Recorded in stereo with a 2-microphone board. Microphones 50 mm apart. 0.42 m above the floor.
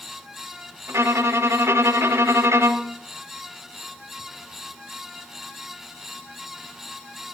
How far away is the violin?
About 1.4 m.